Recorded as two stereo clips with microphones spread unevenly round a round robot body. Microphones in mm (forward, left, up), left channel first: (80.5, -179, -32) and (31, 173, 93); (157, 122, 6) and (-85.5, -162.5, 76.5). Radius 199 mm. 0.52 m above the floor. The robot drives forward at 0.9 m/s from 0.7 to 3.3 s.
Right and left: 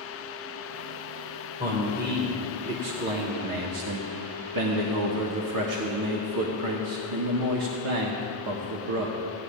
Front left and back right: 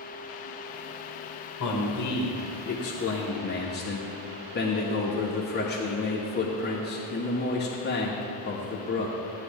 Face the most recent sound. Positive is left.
turn(degrees=70)